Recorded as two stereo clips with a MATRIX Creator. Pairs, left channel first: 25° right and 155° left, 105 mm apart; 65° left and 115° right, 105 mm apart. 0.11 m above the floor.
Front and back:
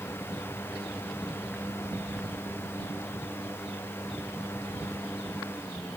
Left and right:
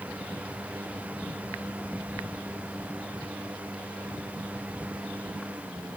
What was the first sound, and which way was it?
Only background noise.